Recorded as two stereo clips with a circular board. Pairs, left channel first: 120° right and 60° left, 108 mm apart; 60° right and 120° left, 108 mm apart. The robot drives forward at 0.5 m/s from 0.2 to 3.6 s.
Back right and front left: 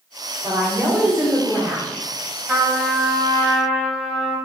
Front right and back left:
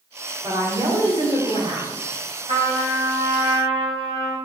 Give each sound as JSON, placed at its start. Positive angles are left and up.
{"t": 0.4, "sound": "a woman speaking", "azimuth_deg": 85, "distance_m": 1.5}
{"t": 2.5, "sound": "a trumpet", "azimuth_deg": 125, "distance_m": 1.8}